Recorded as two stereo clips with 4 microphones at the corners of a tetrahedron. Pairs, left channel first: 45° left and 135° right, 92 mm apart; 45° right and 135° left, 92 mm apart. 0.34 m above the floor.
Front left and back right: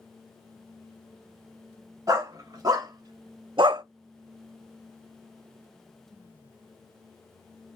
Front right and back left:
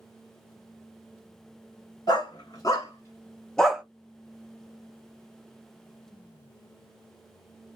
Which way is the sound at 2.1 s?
85° right.